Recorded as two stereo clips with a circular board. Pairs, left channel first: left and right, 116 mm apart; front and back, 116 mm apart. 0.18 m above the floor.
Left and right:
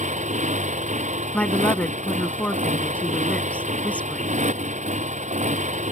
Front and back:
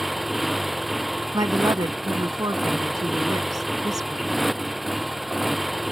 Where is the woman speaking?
160° left.